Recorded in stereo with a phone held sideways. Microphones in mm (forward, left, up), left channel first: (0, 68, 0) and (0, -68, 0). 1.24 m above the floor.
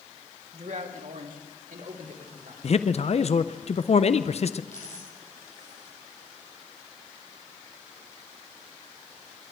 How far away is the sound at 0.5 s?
About 1.6 m.